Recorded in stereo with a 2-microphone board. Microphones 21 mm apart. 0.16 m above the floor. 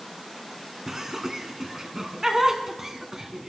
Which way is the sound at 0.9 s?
20° right (ahead or behind).